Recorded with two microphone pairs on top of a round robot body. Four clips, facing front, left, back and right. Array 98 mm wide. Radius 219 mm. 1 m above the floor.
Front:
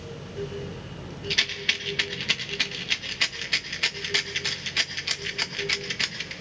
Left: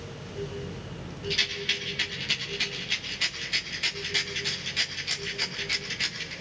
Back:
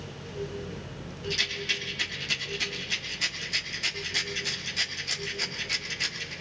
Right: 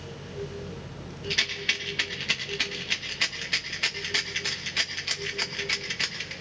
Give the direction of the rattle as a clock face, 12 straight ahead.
1 o'clock.